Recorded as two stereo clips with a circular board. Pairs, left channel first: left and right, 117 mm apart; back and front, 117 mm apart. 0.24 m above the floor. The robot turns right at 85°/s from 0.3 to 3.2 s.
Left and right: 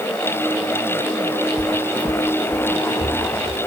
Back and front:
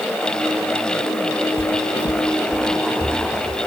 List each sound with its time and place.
1.6 s footsteps: 140° left, 0.8 m; by 3.7 s 55° right, 3.5 m